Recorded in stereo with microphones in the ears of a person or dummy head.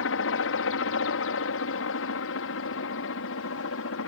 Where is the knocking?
I don't hear knocking.